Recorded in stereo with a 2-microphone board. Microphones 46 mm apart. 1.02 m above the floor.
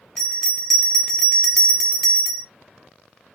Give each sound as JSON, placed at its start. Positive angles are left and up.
{"t": 0.2, "sound": "a bell", "side_deg": 5, "distance_m": 0.7}